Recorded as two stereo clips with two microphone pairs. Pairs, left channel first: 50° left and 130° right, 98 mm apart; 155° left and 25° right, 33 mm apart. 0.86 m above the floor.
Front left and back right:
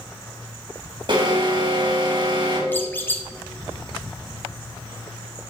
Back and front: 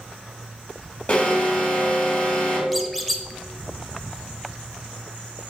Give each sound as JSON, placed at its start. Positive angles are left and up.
{"t": 1.1, "sound": "an alarm", "azimuth_deg": -150, "distance_m": 2.5}
{"t": 2.7, "sound": "a squeak", "azimuth_deg": 70, "distance_m": 0.7}